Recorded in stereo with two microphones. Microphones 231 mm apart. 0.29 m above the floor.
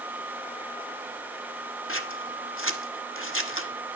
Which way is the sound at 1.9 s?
60° left (ahead or behind).